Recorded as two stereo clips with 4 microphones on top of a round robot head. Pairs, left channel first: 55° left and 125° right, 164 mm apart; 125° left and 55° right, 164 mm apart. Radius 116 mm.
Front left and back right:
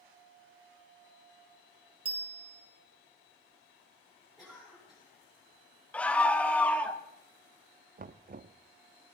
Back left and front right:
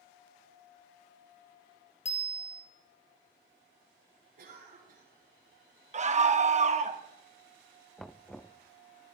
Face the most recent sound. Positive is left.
turn(degrees=-145)